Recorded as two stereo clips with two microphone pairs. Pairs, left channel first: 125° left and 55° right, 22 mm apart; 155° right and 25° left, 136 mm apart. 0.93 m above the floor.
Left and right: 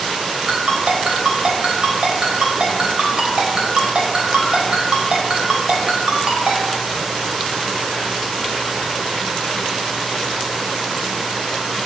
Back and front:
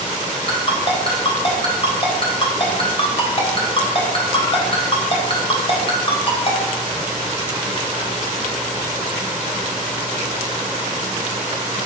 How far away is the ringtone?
About 3.5 m.